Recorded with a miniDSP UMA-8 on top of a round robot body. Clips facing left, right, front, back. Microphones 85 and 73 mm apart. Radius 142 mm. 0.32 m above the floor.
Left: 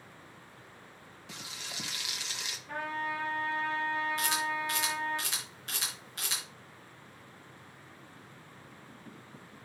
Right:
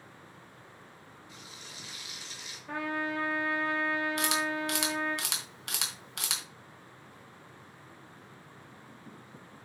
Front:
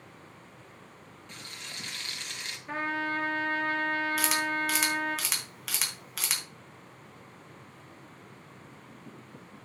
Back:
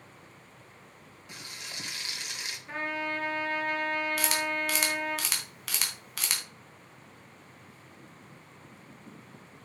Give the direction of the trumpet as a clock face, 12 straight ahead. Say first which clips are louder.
Right 2 dB, front 2 dB; 2 o'clock.